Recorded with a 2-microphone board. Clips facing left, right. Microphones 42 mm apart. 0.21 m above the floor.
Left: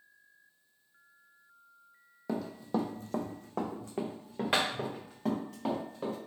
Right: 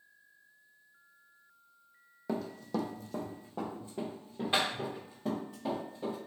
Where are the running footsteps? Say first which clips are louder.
Left 2 dB; 5° right (ahead or behind), 0.7 m; by 6.2 s 70° left (ahead or behind), 2.5 m.